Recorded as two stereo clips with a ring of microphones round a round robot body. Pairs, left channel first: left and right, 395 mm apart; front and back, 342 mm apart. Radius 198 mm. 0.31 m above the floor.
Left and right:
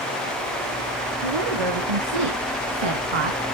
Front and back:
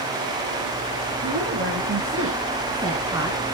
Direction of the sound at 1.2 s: 115° right.